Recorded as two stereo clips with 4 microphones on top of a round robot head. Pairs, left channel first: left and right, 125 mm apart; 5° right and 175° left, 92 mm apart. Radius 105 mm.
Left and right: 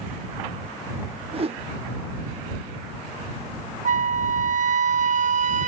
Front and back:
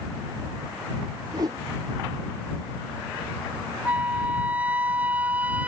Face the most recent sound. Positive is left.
turn(degrees=-110)